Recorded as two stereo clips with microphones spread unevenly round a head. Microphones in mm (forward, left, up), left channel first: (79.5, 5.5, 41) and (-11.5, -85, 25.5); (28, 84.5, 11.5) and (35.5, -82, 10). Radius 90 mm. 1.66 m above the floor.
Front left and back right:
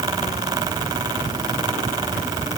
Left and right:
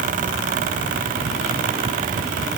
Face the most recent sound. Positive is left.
No sound to turn to.